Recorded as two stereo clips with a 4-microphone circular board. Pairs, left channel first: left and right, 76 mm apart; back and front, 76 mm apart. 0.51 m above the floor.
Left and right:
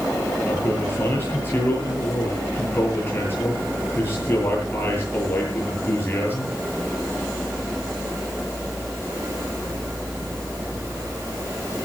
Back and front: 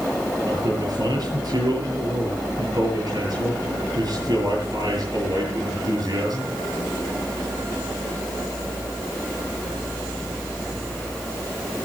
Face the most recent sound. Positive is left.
turn(degrees=30)